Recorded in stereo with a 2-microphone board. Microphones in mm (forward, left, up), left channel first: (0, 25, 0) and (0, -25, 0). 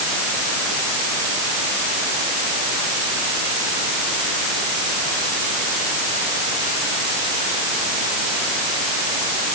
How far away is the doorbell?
No doorbell in this recording.